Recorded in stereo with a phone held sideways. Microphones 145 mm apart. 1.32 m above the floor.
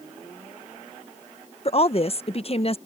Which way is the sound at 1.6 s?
45° left (ahead or behind).